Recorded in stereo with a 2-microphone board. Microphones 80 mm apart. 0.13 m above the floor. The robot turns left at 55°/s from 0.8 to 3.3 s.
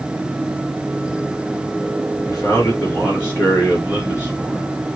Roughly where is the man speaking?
Left.